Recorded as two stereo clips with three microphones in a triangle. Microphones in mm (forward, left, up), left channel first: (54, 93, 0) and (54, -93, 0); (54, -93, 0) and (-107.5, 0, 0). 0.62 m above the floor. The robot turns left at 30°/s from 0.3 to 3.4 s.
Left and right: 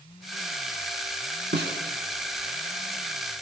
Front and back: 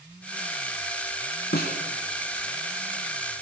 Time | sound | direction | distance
1.5 | a snare drum | 65° right | 2.5 m